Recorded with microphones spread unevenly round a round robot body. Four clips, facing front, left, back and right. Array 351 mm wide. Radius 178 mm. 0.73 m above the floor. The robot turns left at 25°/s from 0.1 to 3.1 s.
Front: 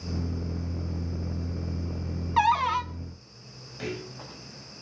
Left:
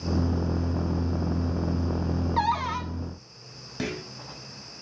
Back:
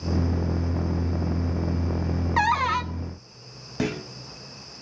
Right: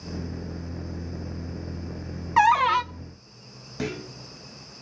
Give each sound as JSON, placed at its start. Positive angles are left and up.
{"t": 2.4, "sound": "a cupboard door", "azimuth_deg": -95, "distance_m": 1.0}
{"t": 3.8, "sound": "a clunk", "azimuth_deg": 180, "distance_m": 6.0}